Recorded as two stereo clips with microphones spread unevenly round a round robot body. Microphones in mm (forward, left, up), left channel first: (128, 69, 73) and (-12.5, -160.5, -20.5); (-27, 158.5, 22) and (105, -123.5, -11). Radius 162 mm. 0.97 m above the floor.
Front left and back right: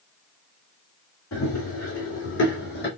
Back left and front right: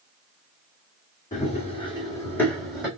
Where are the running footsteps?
55° left, 2 m; by 2.9 s 25° left, 2 m.